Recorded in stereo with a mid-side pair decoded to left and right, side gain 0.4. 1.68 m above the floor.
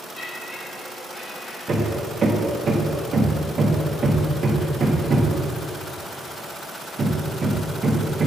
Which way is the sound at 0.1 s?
20° left.